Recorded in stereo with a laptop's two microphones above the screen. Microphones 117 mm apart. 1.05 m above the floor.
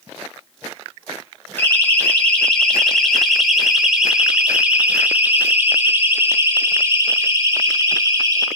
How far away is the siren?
About 5.5 m.